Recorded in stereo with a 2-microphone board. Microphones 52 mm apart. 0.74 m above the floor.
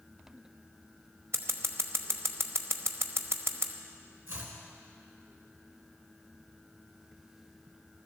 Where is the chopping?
60° right (ahead or behind), 3.5 m.